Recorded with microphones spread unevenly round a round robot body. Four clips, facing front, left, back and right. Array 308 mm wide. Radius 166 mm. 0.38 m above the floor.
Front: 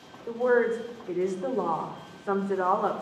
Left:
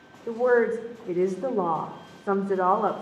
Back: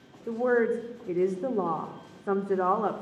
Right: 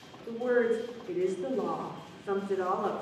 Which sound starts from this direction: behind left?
A woman speaking, at 0.3 s.